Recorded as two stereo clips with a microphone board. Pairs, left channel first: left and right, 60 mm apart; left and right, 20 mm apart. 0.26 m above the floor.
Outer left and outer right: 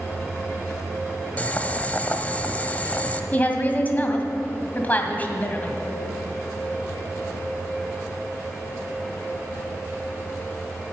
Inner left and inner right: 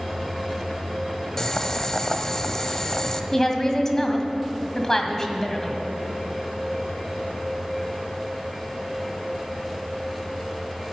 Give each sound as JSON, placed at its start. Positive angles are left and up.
{"t": 1.4, "sound": "boiling", "side_deg": 25, "distance_m": 0.7}
{"t": 3.3, "sound": "a woman speaking", "side_deg": 30, "distance_m": 1.7}